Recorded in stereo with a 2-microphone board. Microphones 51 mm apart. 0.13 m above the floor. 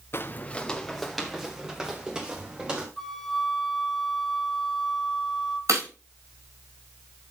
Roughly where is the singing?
No singing in this recording.